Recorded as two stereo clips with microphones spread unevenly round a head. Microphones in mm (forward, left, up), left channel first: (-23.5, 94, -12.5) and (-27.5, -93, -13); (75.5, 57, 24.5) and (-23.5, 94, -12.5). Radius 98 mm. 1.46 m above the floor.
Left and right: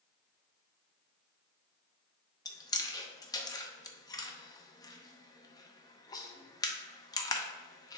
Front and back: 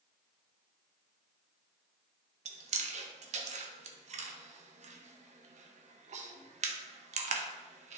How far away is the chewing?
About 0.8 m.